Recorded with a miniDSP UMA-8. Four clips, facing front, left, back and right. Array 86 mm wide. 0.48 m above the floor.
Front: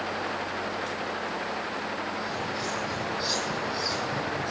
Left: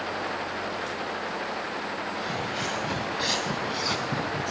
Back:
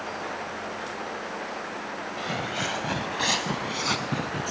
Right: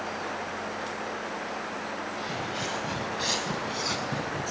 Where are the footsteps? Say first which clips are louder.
Left 2 dB, back 1 dB; 165° left, 3.5 m.